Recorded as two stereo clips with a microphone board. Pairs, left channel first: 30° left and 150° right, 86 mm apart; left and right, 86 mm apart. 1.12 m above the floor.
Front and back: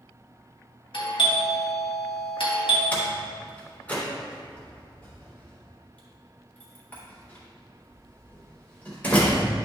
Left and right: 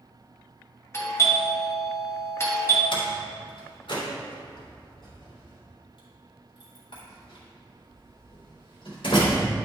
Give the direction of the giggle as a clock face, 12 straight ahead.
No giggle in this recording.